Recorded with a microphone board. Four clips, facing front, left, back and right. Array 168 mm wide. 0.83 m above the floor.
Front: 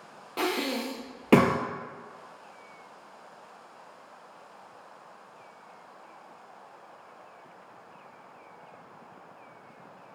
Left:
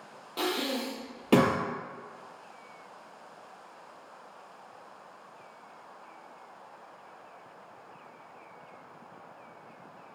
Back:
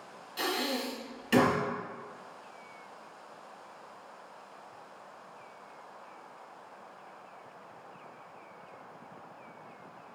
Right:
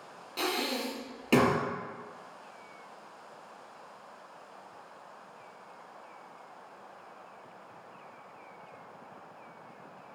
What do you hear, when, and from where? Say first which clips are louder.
0.4 s breathing: left 1 dB, front 4 dB; 15° left, 0.7 m